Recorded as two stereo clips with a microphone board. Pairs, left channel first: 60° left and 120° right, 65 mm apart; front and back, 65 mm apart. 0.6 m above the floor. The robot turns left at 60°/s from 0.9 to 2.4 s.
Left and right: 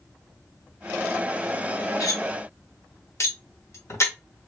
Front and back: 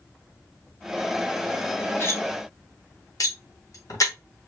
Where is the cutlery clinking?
45° left, 1.0 m; by 4.1 s 20° left, 1.0 m.